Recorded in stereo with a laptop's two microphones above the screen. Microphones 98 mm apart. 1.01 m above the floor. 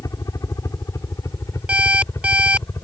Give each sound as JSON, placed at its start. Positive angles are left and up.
{"t": 0.0, "sound": "a helicopter", "side_deg": 35}
{"t": 1.7, "sound": "an alarm clock", "side_deg": -15}